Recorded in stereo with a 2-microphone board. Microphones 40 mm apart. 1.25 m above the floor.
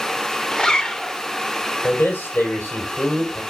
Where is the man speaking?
55° left (ahead or behind), 4.5 m.